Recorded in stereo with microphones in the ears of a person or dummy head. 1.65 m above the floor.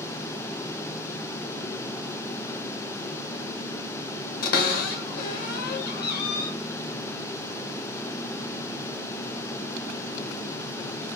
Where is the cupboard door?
55° left (ahead or behind), 0.9 m.